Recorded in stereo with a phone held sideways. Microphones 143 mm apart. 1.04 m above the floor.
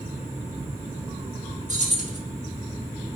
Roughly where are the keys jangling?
Right.